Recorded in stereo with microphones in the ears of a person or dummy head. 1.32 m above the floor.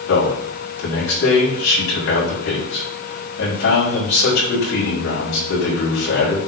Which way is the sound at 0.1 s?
65° left (ahead or behind).